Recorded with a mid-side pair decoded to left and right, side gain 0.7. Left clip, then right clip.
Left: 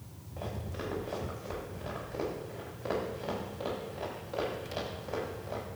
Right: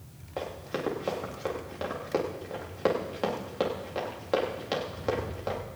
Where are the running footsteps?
55° right, 7.5 m.